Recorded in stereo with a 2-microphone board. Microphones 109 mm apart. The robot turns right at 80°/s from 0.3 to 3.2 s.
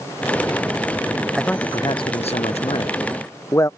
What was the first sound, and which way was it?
A man speaking, 5° left.